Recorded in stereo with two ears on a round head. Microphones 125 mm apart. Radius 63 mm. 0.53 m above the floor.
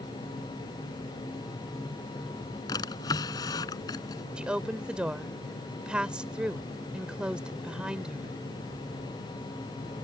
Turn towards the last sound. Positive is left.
turn(degrees=-5)  # may be behind; listen again after turning